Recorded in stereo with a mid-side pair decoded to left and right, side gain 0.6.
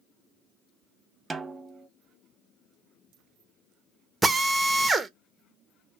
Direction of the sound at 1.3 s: 20° right.